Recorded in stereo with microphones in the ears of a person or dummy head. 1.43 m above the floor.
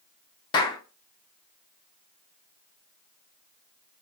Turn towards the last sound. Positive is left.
turn(degrees=25)  # may be behind; listen again after turning